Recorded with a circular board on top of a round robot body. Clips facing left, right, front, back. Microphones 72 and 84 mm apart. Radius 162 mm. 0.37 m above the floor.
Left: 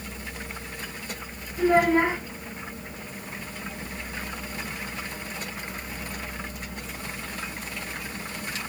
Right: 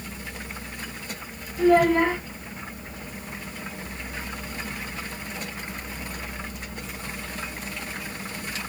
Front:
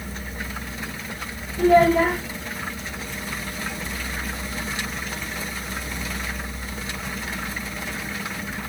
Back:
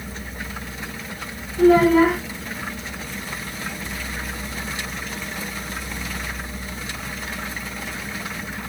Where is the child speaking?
165° left, 3 m.